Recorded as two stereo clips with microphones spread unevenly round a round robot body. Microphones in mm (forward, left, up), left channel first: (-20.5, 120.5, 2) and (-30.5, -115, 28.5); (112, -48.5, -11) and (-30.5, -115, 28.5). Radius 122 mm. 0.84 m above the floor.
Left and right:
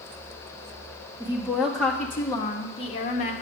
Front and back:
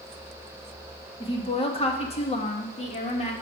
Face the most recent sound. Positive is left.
turn(degrees=45)